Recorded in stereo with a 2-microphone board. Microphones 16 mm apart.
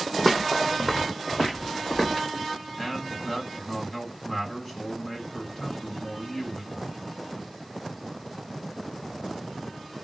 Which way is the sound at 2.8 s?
15° left (ahead or behind).